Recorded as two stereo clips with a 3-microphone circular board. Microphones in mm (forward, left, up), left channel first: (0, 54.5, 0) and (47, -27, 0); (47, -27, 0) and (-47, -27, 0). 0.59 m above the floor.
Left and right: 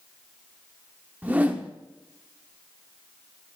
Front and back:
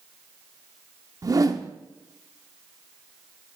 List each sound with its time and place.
1.2 s a whoosh: 135° right, 0.5 m